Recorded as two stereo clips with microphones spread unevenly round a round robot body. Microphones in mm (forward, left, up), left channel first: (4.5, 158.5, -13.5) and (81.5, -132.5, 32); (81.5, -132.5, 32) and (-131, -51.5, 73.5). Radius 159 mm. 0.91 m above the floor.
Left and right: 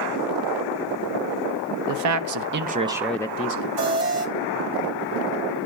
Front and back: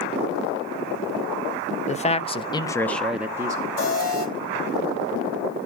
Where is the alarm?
65° right, 8.5 m.